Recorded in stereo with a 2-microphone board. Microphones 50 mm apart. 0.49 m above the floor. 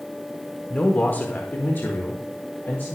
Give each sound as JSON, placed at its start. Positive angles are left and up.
{"t": 0.7, "sound": "a man speaking", "side_deg": 30, "distance_m": 1.3}